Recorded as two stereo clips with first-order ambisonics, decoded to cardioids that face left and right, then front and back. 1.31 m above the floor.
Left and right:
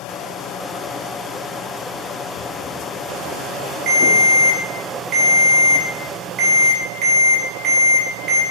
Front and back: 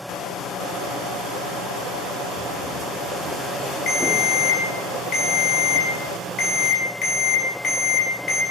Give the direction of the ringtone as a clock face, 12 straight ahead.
2 o'clock.